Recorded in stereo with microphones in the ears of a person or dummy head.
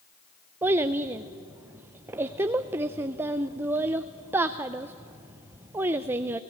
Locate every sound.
0.6 s a child speaking: 10° right (ahead or behind), 0.5 m